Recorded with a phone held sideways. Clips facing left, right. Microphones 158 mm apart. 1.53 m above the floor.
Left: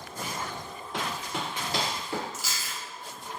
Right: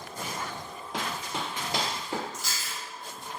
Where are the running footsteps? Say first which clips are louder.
Even; 20° right (ahead or behind), 2.0 m.